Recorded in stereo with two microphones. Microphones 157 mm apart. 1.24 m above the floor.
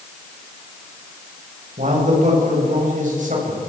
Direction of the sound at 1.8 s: 55° right (ahead or behind).